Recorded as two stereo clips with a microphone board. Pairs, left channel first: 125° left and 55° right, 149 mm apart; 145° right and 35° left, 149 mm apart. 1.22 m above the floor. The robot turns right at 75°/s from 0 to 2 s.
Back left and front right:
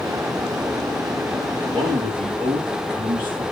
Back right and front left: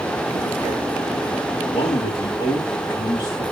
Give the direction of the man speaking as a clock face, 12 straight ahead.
4 o'clock.